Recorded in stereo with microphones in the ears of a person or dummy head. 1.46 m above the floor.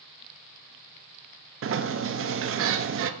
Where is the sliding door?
65° right (ahead or behind), 0.6 m.